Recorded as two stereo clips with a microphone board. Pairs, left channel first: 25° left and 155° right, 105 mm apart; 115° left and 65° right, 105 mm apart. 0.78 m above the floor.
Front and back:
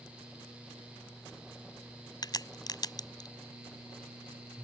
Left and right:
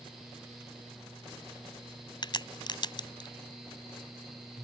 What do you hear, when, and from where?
2.2 s a crack: 70° left